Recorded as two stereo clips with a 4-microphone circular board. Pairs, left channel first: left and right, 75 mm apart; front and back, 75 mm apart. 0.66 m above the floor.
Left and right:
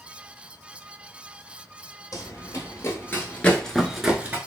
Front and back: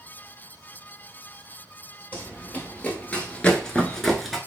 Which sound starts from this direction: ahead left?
Running footsteps, at 2.1 s.